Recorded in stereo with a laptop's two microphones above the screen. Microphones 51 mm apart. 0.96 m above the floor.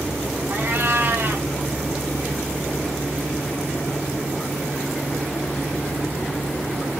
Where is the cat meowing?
45° right (ahead or behind), 1.1 m.